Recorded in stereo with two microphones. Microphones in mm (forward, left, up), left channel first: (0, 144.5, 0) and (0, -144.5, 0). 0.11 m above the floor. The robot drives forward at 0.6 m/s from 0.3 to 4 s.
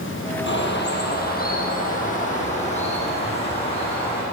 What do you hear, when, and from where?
0.5 s a bird: 40° left (ahead or behind), 1.7 m; by 4.2 s 20° left (ahead or behind), 3.5 m